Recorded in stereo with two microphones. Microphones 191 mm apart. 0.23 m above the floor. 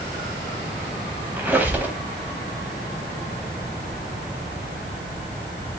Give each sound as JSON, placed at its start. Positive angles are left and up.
{"t": 1.4, "sound": "a squeak", "side_deg": -10, "distance_m": 0.9}